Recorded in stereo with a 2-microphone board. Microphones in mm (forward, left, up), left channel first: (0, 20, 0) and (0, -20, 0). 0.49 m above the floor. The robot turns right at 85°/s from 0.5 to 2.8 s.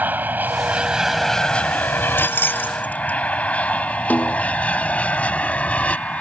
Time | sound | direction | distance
0.0 | an aircraft | 50° right (ahead or behind) | ?
2.2 | keys jangling | 70° left (ahead or behind) | ?
4.1 | a snare drum | 50° left (ahead or behind) | ?